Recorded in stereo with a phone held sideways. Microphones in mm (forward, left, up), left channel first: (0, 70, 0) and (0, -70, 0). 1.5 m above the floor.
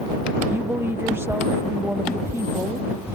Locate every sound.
0.5 s a woman speaking: 15° right (ahead or behind)